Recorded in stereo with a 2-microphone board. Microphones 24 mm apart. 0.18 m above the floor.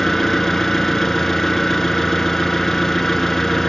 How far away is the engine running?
About 0.8 m.